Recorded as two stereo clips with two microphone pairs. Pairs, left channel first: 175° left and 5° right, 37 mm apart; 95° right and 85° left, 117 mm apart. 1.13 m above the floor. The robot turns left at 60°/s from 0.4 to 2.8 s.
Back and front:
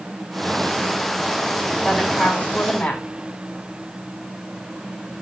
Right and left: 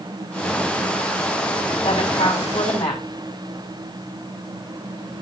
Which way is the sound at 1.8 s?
95° right.